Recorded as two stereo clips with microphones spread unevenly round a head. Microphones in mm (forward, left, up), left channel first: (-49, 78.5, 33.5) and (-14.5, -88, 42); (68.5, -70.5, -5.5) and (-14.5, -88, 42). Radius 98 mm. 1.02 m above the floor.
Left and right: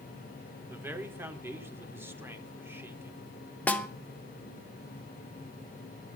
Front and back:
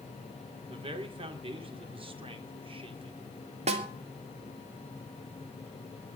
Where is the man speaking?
155° right, 2.5 m.